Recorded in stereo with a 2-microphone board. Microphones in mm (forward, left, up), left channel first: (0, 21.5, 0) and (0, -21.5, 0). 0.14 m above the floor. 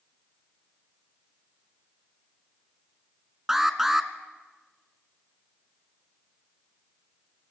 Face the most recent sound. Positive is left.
turn(degrees=-10)  # may be behind; listen again after turning